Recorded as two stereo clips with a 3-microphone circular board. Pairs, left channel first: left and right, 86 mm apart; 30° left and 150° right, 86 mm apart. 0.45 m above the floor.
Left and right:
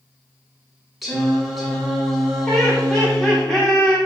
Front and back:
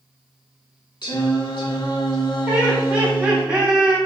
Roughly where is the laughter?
Behind left.